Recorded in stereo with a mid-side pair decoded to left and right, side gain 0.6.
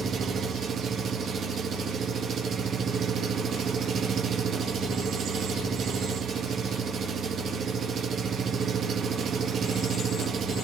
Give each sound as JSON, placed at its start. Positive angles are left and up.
{"t": 0.0, "sound": "an engine running", "azimuth_deg": -45, "distance_m": 1.7}